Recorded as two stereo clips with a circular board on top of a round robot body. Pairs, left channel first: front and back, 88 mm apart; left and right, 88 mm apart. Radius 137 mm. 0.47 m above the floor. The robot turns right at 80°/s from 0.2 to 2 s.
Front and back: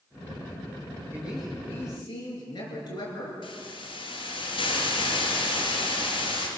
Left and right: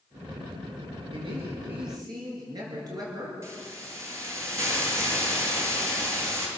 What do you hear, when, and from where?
1.1 s a man speaking: 115° right, 8 m; by 3.3 s 45° right, 8 m
3.4 s a hiss: 30° right, 4 m